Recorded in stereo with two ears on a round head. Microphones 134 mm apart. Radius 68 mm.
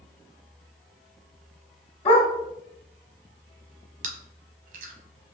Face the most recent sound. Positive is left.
turn(degrees=-50)  # may be behind; listen again after turning